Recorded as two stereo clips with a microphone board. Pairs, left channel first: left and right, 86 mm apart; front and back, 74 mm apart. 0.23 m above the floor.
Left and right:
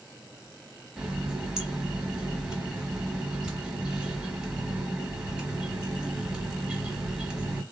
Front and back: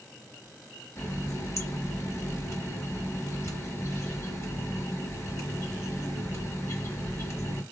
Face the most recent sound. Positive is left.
turn(degrees=-15)